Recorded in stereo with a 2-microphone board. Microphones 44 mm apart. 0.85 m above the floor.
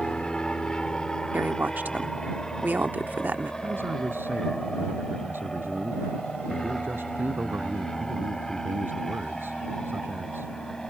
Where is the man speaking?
55° right (ahead or behind).